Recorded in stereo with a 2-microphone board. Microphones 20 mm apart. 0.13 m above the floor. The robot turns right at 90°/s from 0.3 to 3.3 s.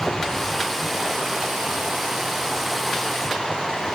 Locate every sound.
0.0 s running water: 140° left, 3 m; by 4.0 s 50° left, 3 m